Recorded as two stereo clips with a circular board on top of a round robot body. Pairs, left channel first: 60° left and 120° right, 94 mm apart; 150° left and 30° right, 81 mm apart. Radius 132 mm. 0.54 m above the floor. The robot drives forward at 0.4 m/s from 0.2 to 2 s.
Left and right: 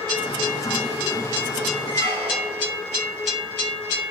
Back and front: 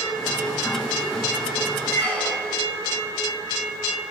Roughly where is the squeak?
Behind right.